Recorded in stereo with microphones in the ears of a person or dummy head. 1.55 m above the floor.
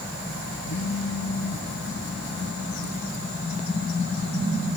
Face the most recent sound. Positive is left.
turn(degrees=65)  # may be behind; listen again after turning